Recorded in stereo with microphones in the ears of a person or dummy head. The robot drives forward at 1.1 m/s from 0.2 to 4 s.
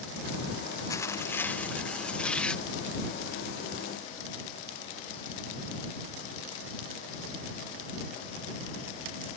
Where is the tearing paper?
15° left (ahead or behind); by 2.6 s 5° left (ahead or behind).